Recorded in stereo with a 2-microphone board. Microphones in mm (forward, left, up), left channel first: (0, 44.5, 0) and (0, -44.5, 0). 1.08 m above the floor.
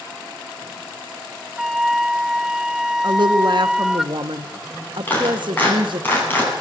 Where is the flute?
5° right (ahead or behind), 0.6 m.